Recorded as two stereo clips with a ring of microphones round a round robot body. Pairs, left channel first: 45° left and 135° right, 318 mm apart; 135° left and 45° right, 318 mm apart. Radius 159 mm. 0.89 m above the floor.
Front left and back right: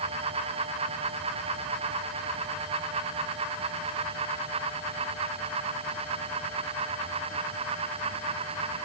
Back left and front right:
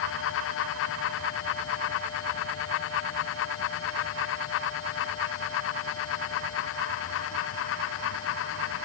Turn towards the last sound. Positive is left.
No sound to turn to.